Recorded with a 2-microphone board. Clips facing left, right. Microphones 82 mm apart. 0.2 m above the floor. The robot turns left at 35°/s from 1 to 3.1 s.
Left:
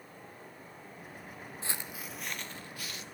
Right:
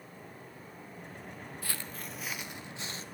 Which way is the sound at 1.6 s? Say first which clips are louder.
Left 2 dB; 25° left (ahead or behind).